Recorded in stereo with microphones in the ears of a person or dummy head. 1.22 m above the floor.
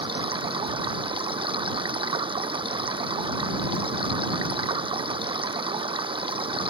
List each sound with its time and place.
0.0 s running water: 25° right (ahead or behind)